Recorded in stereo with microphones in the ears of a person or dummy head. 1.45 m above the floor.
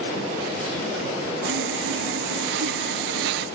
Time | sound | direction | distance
1.4 | sawing | 60° right (ahead or behind) | ?